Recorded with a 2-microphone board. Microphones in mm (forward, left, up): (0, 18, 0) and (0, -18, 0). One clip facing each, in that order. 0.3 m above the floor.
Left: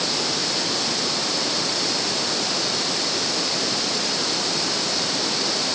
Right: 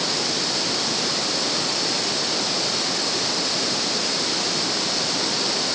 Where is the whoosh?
I don't hear a whoosh.